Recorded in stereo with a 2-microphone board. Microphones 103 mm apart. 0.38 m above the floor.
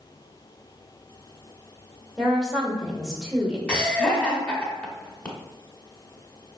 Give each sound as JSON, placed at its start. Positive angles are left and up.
{"t": 2.2, "sound": "a woman speaking", "side_deg": -5, "distance_m": 1.0}
{"t": 3.7, "sound": "laughter", "side_deg": 10, "distance_m": 1.1}